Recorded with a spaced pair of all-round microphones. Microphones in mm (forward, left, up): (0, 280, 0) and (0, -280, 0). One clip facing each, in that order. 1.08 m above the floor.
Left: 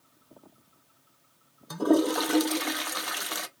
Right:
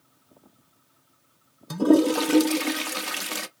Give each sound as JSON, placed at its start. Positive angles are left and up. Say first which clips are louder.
{"t": 1.7, "sound": "a toilet flushing", "louder": "right 5 dB", "side_deg": -50, "distance_m": 0.6}